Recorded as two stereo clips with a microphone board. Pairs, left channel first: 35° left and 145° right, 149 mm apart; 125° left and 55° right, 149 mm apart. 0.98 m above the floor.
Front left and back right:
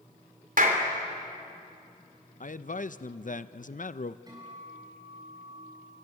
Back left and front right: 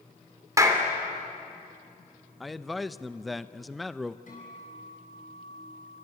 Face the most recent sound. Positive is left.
turn(degrees=150)